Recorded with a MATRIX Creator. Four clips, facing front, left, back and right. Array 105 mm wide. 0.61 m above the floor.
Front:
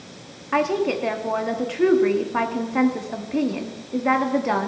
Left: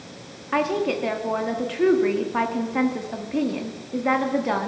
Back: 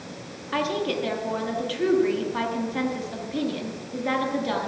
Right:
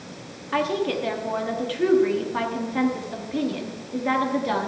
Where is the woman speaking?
30° left, 1.1 m.